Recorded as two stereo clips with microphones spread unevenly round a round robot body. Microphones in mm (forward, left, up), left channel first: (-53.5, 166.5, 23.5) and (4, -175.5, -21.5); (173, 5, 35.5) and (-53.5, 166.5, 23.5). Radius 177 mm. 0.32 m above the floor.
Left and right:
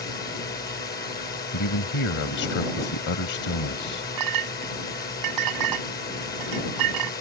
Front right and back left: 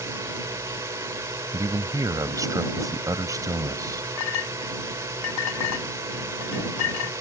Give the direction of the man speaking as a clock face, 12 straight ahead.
10 o'clock.